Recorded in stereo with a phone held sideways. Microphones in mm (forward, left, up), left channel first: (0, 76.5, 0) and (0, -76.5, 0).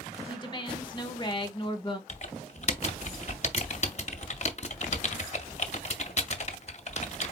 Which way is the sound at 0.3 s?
30° left (ahead or behind).